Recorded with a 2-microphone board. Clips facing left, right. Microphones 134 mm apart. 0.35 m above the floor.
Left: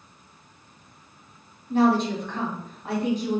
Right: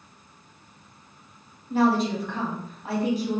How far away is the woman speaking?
About 2 m.